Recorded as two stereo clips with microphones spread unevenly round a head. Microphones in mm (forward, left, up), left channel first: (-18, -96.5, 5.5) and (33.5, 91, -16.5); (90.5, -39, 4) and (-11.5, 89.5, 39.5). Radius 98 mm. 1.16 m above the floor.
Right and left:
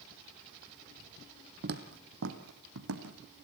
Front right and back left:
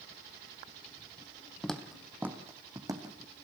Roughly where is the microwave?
I don't hear a microwave.